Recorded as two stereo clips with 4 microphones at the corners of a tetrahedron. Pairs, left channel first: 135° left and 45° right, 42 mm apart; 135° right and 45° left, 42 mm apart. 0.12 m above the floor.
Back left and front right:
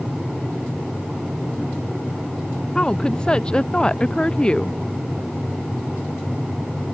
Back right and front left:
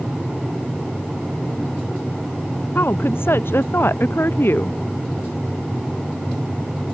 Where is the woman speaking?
160° right.